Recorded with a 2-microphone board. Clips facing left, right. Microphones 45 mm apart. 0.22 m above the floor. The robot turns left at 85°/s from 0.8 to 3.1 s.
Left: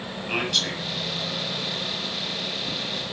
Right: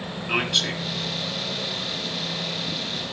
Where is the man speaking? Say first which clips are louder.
Right 2 dB; 10° right (ahead or behind), 1.6 m.